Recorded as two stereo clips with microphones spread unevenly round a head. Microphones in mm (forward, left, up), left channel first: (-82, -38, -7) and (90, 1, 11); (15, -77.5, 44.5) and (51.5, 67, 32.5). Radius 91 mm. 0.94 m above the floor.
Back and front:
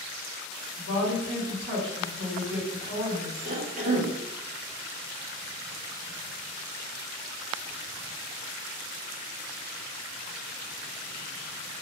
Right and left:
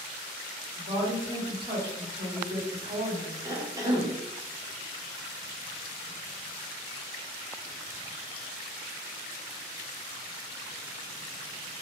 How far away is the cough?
About 0.6 m.